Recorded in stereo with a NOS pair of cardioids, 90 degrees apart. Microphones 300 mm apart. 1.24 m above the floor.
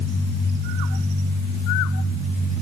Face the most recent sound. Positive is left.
No sound to turn to.